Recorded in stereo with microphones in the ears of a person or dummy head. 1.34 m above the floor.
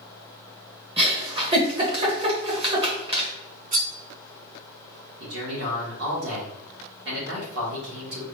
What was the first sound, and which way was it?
A giggle, 30° right (ahead or behind).